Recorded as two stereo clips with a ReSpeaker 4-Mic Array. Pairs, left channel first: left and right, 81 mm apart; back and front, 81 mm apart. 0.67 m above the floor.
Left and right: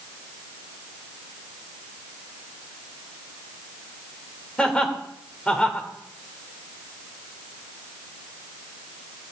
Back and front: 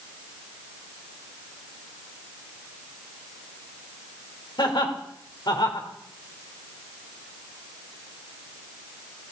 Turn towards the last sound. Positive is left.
turn(degrees=170)